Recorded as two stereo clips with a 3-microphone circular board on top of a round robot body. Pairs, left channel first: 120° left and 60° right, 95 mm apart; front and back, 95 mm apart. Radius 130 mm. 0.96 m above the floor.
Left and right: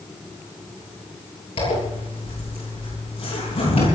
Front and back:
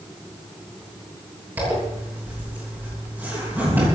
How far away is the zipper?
About 9 m.